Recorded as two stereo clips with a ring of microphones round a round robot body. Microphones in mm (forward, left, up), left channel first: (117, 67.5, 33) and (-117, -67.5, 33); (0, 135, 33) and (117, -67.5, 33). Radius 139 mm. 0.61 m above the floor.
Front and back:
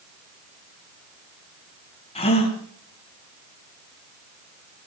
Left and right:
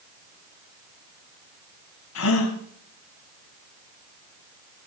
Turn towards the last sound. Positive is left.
turn(degrees=100)